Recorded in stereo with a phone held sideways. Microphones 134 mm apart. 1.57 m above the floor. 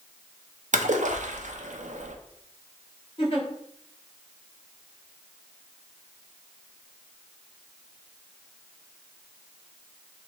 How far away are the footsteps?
No footsteps in this recording.